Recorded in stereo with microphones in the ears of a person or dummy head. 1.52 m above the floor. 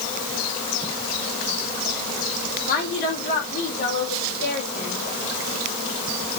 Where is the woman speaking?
50° left (ahead or behind), 4 m.